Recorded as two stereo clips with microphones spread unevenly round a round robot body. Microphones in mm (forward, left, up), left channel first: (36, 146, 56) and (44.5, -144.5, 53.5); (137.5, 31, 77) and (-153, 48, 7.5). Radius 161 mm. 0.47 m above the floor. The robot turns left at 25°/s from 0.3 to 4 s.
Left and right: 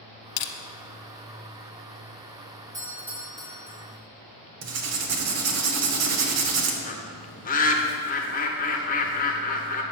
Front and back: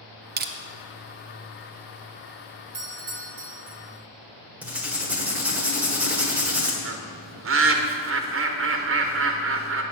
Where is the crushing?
115° left, 0.8 m; by 0.5 s 110° left, 0.8 m.